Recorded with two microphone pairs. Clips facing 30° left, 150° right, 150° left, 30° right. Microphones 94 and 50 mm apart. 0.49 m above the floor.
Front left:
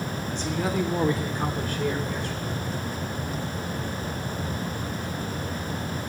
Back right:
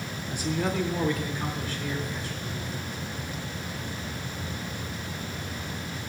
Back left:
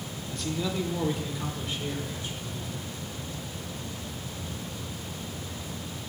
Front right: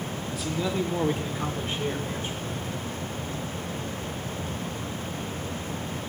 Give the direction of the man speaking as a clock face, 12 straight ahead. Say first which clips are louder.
Even, front right 2 dB; 4 o'clock.